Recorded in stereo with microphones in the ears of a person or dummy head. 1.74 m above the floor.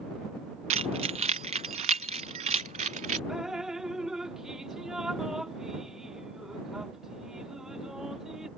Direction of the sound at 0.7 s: 35° right (ahead or behind).